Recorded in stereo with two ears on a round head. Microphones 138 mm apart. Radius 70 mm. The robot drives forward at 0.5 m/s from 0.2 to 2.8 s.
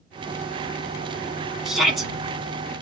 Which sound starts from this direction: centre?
A shout, at 1.6 s.